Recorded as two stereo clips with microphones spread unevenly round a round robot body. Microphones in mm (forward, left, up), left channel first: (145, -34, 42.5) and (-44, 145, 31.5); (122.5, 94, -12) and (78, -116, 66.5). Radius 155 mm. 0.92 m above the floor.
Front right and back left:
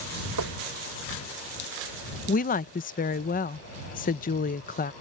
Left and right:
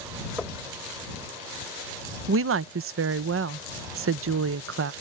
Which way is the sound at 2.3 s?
85° right.